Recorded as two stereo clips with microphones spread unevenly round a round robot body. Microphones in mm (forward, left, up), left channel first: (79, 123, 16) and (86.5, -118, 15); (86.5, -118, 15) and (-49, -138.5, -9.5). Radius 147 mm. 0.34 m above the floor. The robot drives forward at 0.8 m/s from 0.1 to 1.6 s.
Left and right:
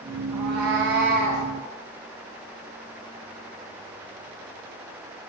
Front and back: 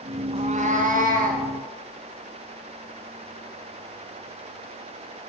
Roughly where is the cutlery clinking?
I don't hear cutlery clinking.